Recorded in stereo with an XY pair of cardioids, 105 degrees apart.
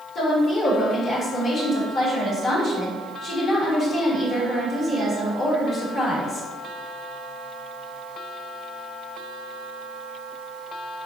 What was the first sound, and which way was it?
A woman speaking, 50° left.